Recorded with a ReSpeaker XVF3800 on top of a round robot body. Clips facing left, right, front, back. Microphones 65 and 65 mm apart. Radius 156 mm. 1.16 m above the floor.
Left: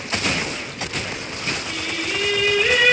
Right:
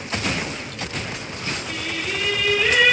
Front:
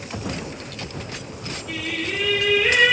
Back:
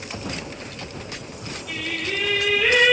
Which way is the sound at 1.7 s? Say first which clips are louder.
Left 1 dB, front 1 dB; 155° right.